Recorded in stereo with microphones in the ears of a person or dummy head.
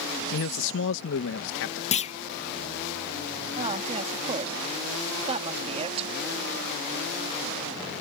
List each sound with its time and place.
0.3 s a man speaking: 65° left (ahead or behind)
1.9 s a clunk: 35° left (ahead or behind)
3.6 s a woman speaking: 30° right (ahead or behind)